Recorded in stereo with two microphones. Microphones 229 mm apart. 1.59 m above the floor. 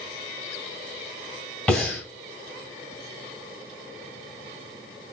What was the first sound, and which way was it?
Breathing, 5° left (ahead or behind).